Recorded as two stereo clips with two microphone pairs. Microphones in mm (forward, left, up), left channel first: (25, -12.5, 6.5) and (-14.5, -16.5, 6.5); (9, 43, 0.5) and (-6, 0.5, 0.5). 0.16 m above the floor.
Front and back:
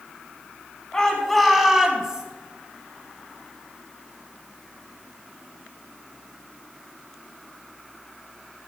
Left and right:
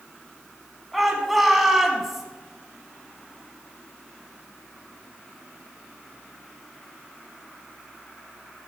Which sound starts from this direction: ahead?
A shout, at 0.9 s.